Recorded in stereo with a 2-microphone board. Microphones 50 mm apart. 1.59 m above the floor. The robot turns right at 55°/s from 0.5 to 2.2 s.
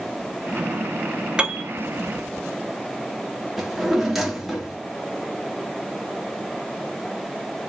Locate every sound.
1.4 s a piano: 20° right (ahead or behind), 0.7 m; by 1.7 s 15° right (ahead or behind), 0.7 m
3.6 s a drawer: 5° right (ahead or behind), 1.2 m